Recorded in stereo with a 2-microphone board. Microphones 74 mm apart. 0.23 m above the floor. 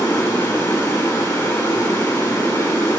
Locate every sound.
0.0 s running water: 45° left (ahead or behind), 3.5 m